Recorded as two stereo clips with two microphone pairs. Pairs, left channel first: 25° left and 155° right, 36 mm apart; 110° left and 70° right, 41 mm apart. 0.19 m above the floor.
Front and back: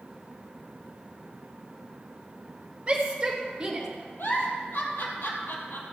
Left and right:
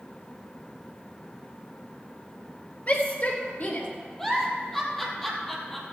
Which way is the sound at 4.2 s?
30° left.